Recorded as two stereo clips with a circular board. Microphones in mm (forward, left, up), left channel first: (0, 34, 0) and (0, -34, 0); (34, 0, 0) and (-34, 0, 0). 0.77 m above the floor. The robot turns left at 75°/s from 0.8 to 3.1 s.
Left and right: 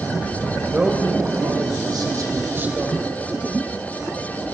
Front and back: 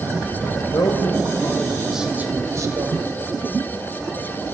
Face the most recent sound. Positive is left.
turn(degrees=175)